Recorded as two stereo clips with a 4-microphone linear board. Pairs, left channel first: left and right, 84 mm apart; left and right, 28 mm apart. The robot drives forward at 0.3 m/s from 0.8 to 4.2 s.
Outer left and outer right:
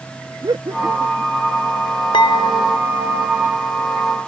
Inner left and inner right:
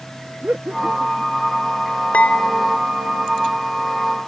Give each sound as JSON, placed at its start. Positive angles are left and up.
{"t": 0.4, "sound": "laughter", "side_deg": -55}
{"t": 2.1, "sound": "dishes clattering", "side_deg": 75}